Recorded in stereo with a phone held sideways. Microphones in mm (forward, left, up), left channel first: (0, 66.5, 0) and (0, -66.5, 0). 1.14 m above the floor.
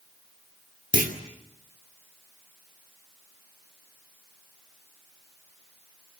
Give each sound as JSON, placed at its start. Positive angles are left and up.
{"t": 0.9, "sound": "a clunk", "side_deg": -85, "distance_m": 2.5}